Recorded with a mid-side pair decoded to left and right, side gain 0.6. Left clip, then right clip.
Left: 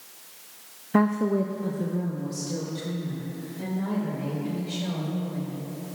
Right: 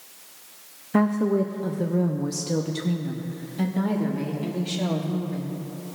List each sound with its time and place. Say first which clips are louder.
0.9 s a woman speaking: right 1 dB; 5° left, 0.7 m; by 5.6 s 80° right, 2.5 m